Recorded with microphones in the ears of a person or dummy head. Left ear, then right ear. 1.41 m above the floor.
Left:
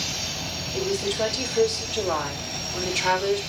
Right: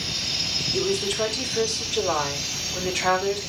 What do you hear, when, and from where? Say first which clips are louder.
0.7 s a woman speaking: right 1 dB; 55° right (ahead or behind), 4.5 m; by 3.4 s 30° right (ahead or behind), 3.5 m